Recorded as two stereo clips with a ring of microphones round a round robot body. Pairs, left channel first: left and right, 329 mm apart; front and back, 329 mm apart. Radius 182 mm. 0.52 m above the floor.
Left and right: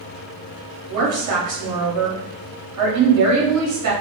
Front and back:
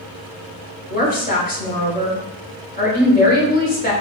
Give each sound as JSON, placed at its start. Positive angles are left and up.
{"t": 0.9, "sound": "a woman speaking", "azimuth_deg": -60, "distance_m": 1.6}